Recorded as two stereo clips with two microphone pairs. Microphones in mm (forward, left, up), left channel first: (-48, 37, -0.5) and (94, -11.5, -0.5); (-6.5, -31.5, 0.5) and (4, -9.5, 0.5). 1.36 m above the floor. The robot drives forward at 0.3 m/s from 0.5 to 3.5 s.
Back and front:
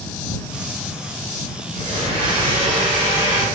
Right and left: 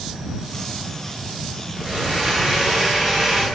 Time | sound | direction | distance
1.8 | a blender | 5° right | 1.4 m